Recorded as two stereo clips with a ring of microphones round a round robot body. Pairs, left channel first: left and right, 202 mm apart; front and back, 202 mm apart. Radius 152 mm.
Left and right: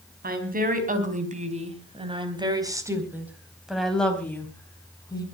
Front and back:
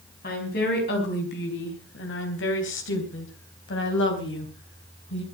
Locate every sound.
0.2 s a woman speaking: 50° right, 4.5 m; by 5.2 s 20° left, 4.5 m